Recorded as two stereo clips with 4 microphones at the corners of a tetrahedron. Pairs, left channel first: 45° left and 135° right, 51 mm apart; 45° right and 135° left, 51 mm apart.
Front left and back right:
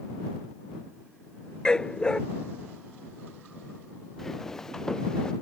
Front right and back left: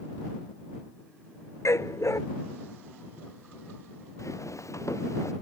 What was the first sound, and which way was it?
A dog barking, 30° right.